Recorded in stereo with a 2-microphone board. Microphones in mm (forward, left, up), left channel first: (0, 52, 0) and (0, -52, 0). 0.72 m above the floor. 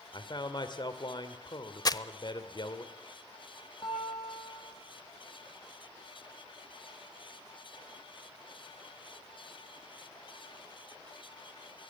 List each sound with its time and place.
0.1 s a man speaking: 45° left (ahead or behind), 2 m
1.9 s crumpling: 40° left (ahead or behind), 0.7 m
3.8 s a guitar: 50° left (ahead or behind), 7 m